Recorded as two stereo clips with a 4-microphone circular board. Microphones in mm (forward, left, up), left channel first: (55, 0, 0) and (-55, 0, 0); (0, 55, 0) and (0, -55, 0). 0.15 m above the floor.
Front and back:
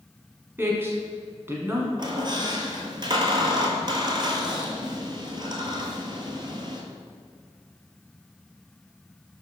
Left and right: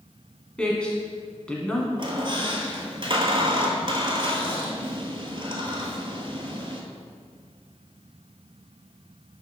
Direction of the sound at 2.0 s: 135° right.